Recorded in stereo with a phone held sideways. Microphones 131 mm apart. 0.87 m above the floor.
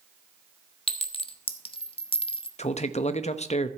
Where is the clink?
40° left (ahead or behind), 0.8 m.